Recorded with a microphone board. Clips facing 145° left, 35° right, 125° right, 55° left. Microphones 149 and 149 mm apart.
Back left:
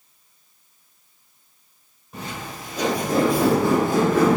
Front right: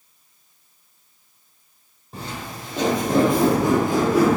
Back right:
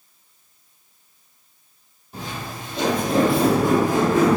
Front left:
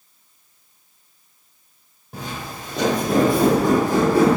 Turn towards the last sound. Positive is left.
turn(degrees=45)